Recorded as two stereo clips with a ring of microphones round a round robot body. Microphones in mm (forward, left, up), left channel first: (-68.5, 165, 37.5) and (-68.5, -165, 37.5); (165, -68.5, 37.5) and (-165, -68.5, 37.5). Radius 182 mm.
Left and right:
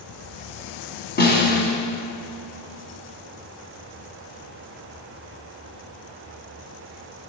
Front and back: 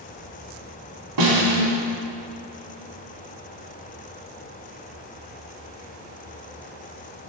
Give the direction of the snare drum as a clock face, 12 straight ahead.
7 o'clock.